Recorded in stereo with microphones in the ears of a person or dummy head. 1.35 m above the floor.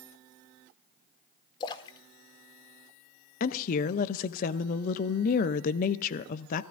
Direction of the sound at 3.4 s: 45° left (ahead or behind).